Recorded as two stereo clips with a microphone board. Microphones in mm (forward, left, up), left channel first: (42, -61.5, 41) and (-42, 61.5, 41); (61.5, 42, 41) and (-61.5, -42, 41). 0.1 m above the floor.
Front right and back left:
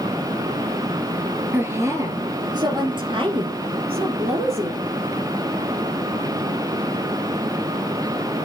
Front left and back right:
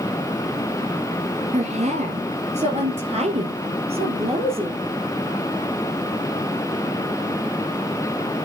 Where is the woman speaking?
165° right, 1.8 m; by 4.8 s 165° left, 3.5 m.